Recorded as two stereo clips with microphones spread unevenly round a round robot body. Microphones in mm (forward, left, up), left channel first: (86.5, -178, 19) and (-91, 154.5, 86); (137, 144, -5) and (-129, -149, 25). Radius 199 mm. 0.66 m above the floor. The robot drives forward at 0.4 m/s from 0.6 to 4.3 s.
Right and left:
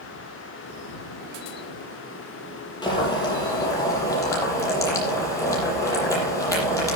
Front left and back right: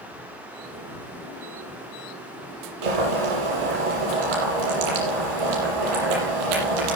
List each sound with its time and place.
2.8 s boiling: 140° right, 6.5 m; by 7.0 s 145° right, 7 m